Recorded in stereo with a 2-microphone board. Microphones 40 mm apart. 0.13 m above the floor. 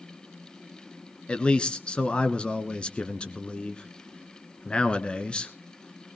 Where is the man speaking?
25° left (ahead or behind), 1.3 m.